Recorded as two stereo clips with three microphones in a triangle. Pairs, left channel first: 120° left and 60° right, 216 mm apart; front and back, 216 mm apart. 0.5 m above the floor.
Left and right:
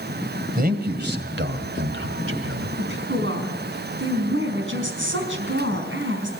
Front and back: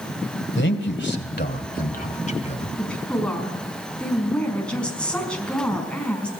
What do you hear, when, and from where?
0.6 s a man speaking: 20° right, 2.5 m; by 2.7 s 60° right, 3 m
2.8 s a woman speaking: 85° right, 5 m